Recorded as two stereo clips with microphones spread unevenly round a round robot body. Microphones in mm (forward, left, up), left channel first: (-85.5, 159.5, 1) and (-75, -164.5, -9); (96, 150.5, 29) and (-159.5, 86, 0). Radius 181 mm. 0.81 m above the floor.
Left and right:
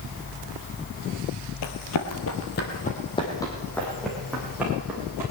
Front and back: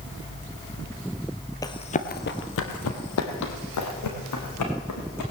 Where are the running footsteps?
85° left, 1.3 m; by 5.2 s 5° right, 4 m.